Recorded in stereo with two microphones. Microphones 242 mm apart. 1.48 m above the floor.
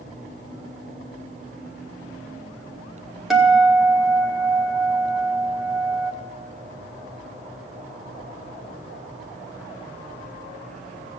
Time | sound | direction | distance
3.3 | a guitar | centre (ahead or behind) | 1.4 m